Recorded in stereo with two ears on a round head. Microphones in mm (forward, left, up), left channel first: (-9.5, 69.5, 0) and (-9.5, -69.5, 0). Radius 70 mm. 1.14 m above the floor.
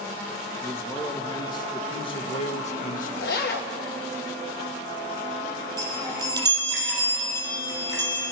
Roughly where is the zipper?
Left.